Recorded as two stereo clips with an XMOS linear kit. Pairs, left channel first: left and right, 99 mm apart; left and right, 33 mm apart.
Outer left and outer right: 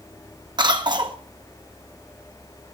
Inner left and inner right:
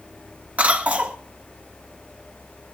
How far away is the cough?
About 1.7 m.